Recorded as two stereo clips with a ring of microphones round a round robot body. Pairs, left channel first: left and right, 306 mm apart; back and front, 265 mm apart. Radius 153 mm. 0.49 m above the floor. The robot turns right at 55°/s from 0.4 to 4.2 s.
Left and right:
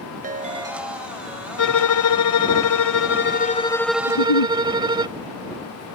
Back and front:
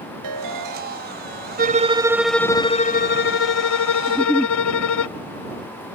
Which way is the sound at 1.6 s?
50° left.